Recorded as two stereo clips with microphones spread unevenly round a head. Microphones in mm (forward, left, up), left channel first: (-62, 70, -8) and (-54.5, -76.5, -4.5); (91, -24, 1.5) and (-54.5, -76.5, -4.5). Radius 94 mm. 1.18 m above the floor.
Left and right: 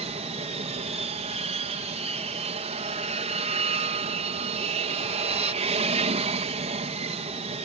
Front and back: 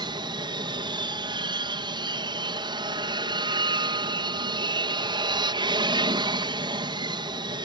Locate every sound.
0.0 s an aircraft: 110° right